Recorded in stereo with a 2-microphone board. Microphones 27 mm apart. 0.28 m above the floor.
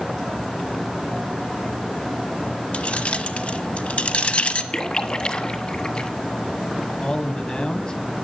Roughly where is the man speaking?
Left.